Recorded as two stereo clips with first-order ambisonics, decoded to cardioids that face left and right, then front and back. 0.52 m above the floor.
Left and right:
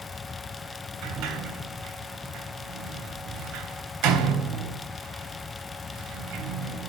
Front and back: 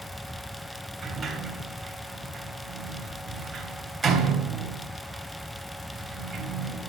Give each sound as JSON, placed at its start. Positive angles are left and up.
{"t": 1.0, "sound": "a sliding door", "azimuth_deg": -105, "distance_m": 3.5}